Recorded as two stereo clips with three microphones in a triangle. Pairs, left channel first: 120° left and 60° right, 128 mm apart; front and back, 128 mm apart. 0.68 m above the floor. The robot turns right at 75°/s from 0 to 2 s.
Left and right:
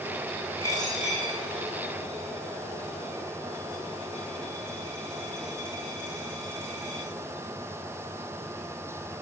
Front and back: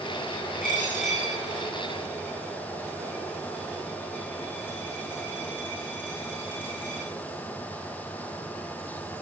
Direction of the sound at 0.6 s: 5° right.